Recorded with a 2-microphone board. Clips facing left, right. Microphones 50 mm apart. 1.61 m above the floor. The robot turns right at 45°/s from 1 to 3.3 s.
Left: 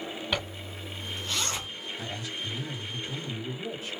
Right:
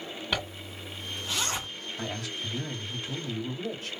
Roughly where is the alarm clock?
No alarm clock in this recording.